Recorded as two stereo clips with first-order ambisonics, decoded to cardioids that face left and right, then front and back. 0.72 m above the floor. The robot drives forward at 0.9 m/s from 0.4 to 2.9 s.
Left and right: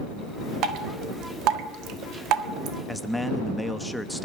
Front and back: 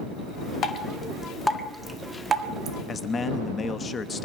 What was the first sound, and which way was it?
Dripping, 50° right.